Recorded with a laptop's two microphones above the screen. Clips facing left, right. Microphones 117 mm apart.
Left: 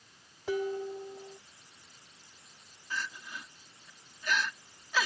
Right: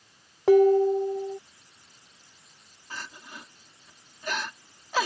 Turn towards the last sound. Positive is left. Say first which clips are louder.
# left 2 dB
turn(degrees=-45)  # may be behind; listen again after turning